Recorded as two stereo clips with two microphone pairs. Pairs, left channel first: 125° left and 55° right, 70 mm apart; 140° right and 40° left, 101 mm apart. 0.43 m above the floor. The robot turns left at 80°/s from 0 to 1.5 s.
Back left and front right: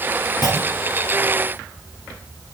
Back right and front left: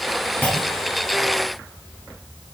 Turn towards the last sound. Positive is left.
turn(degrees=60)